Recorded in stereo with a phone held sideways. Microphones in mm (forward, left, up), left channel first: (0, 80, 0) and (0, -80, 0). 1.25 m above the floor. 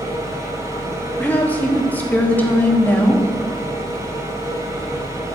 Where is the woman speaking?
10° left (ahead or behind), 2.5 m.